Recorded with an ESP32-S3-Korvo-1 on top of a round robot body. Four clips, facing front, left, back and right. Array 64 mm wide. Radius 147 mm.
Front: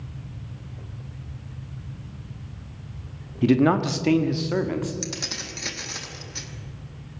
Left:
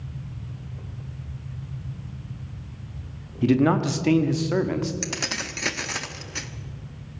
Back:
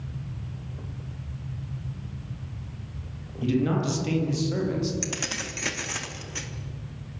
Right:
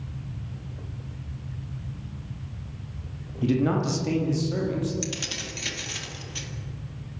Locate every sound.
3.4 s a man speaking: 30° left, 2 m; by 4.9 s 65° left, 2.5 m
5.0 s keys jangling: 100° left, 1.3 m